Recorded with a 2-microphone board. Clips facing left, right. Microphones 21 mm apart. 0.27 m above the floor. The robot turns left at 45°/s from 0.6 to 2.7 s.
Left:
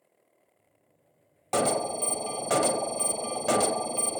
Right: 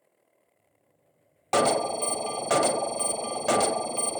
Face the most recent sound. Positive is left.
turn(degrees=-10)  # may be behind; listen again after turning